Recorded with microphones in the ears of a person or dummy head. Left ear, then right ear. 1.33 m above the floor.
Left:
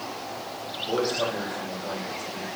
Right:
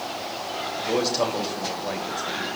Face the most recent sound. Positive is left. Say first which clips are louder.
# right 2 dB
turn(degrees=-15)  # may be behind; listen again after turning